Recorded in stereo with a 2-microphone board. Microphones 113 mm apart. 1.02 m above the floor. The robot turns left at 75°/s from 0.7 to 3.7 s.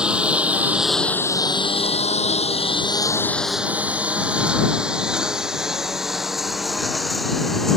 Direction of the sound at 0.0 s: 10° right (ahead or behind).